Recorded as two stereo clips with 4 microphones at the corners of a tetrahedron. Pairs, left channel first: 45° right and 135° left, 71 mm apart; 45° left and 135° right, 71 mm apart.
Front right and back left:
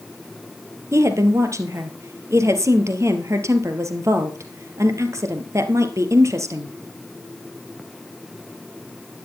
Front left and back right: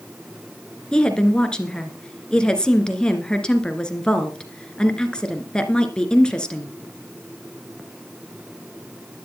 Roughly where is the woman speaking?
Behind left.